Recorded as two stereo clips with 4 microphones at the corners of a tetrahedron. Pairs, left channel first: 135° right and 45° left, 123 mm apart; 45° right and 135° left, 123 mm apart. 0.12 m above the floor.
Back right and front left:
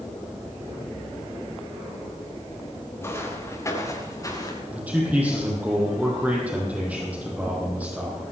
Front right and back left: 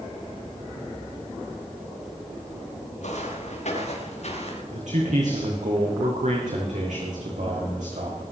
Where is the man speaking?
120° left, 5 m.